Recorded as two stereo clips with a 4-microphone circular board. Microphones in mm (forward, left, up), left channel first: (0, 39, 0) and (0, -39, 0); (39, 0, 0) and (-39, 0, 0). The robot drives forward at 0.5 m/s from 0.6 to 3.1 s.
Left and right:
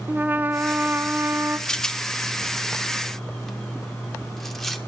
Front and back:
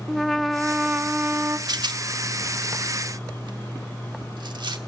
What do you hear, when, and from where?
0.1 s a trumpet: 90° right, 0.6 m; by 1.6 s 155° right, 0.8 m
1.7 s a rattle: 170° left, 0.6 m; by 4.8 s 175° left, 1.3 m